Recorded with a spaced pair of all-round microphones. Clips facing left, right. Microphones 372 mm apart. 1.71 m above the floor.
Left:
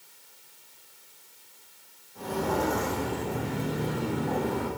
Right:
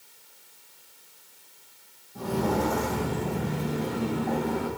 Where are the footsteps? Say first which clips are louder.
Right 2 dB; 50° right (ahead or behind), 4.5 m; by 4.7 s 60° right (ahead or behind), 6.5 m.